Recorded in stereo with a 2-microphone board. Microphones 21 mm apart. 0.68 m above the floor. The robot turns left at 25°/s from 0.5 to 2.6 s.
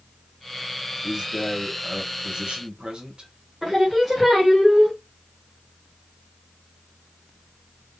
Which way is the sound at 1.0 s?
30° right.